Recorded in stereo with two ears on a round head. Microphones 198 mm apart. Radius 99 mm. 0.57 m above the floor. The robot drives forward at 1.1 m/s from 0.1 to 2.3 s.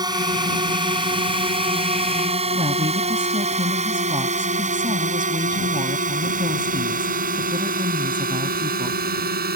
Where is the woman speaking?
20° right (ahead or behind).